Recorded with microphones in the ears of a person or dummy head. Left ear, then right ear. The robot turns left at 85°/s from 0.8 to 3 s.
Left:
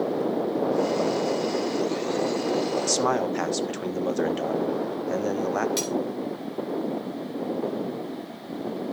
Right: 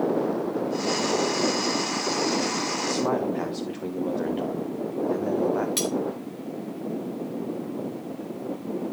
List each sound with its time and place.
2.9 s a man speaking: 75° left (ahead or behind), 1.2 m
5.8 s cutlery clinking: 10° right (ahead or behind), 2 m